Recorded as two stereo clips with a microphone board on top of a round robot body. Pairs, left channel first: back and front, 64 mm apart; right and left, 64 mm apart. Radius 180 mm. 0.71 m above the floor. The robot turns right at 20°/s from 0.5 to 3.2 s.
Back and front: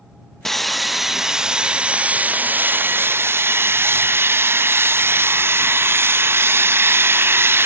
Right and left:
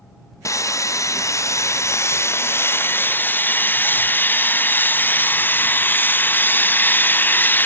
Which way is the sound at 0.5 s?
95° right.